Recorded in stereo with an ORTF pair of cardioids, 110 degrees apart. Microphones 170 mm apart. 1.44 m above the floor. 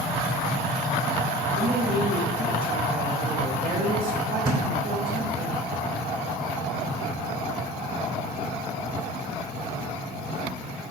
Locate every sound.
1.6 s a woman speaking: 60° right, 5 m
4.5 s a thud: 30° right, 3 m